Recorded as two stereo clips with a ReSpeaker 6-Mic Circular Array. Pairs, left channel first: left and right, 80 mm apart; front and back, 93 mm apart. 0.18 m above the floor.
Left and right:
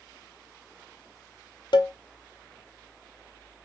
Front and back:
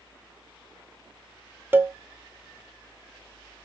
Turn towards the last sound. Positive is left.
turn(degrees=115)